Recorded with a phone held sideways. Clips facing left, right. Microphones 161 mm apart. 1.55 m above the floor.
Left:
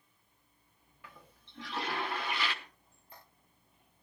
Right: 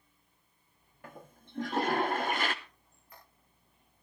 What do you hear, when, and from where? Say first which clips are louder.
1.0 s a toilet flushing: right 7 dB; 45° right (ahead or behind), 1.0 m
2.6 s a squeak: left 1 dB; 30° left (ahead or behind), 10 m